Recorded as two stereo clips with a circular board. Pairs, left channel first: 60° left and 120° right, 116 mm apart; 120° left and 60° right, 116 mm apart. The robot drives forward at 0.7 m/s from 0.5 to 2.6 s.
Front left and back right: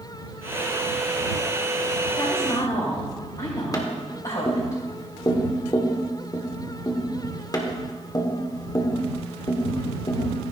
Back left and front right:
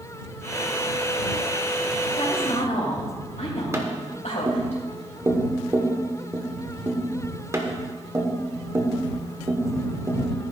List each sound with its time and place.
2.2 s a woman speaking: 105° left, 3 m; by 4.7 s 110° left, 3 m
3.7 s tapping: 5° left, 1.2 m